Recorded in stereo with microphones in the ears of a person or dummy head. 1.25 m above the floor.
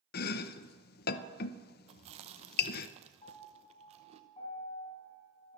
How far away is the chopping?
About 0.7 m.